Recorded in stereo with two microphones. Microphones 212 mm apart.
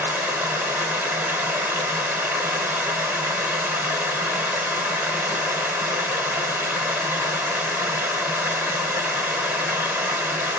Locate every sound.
0.0 s running water: 10° right (ahead or behind), 1.0 m